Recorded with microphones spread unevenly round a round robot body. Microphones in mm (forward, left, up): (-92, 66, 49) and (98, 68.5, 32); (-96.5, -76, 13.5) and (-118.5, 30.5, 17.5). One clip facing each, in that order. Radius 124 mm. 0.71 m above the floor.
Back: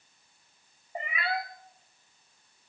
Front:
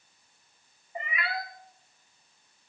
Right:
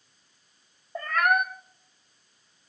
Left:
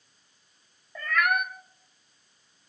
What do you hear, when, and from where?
0.9 s a cat meowing: 125° right, 0.7 m